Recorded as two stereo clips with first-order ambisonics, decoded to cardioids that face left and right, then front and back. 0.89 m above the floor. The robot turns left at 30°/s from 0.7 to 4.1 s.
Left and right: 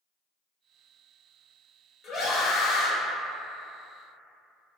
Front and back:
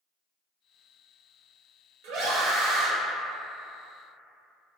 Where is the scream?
150° left, 0.7 m; by 2.9 s 125° left, 0.7 m.